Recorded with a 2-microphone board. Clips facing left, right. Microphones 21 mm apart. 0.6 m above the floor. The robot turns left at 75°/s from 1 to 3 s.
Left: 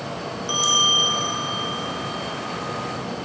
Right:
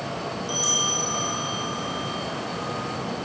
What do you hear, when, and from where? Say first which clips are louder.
0.5 s a bell: left 6 dB; 35° left, 1.1 m; by 2.3 s 60° right, 1.1 m